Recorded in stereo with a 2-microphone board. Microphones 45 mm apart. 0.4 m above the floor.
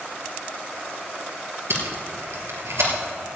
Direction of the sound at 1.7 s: 85° right.